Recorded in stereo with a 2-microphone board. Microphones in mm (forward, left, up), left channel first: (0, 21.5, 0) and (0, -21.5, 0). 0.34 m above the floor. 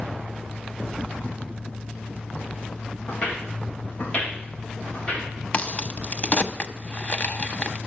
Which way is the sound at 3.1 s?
30° left (ahead or behind).